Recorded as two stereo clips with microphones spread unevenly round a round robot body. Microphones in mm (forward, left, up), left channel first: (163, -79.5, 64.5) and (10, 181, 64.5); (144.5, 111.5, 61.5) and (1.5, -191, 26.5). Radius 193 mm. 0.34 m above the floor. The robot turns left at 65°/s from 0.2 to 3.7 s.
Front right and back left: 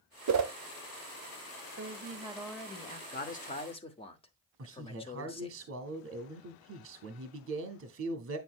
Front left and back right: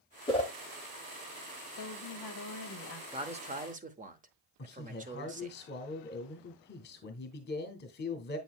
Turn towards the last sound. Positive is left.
turn(degrees=120)